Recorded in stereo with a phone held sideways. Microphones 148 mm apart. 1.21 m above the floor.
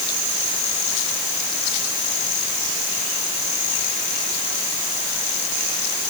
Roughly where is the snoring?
No snoring in this recording.